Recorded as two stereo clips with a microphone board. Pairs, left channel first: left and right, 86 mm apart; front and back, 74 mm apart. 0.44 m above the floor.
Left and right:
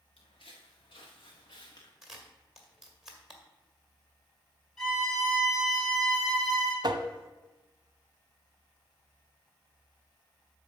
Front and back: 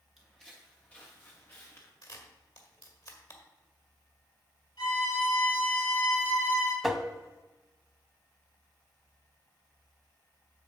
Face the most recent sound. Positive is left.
turn(degrees=-90)